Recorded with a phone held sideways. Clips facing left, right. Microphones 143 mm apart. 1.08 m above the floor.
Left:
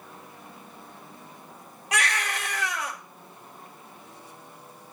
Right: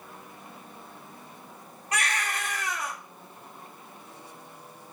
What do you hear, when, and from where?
1.9 s a baby crying: 80° left, 1.4 m